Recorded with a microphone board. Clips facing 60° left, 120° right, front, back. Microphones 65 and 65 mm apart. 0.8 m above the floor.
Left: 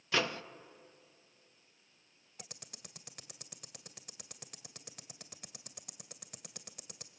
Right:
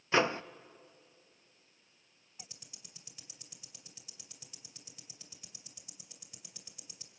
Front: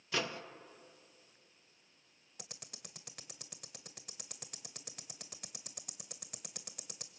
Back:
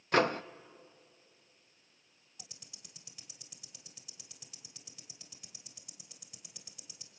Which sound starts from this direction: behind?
A microwave, at 0.1 s.